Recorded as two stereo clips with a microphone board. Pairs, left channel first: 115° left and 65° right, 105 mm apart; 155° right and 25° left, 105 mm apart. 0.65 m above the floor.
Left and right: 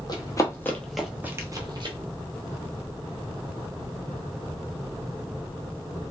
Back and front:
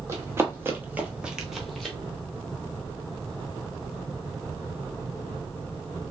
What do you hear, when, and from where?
0.1 s running footsteps: 80° left, 0.9 m; by 2.0 s 70° right, 0.9 m